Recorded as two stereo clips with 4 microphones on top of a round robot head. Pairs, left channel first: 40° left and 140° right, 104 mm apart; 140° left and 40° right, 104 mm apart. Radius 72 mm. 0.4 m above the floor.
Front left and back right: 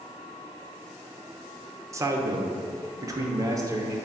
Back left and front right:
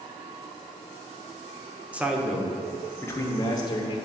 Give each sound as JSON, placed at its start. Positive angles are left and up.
{"t": 1.9, "sound": "a man speaking", "azimuth_deg": -110, "distance_m": 0.9}